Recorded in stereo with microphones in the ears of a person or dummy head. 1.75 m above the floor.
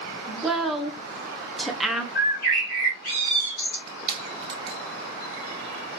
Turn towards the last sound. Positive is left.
turn(degrees=-30)  # may be behind; listen again after turning